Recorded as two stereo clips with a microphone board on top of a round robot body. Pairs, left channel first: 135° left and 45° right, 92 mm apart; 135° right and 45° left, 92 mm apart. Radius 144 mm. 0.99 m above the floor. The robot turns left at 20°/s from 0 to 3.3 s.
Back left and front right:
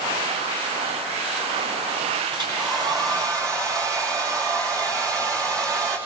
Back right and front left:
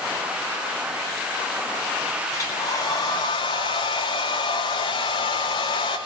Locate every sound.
2.3 s a hair dryer: 80° right, 9.5 m; by 6.0 s 100° right, 9.5 m